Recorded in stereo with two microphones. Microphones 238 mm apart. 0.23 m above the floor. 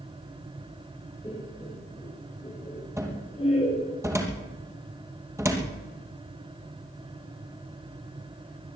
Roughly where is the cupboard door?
Centre.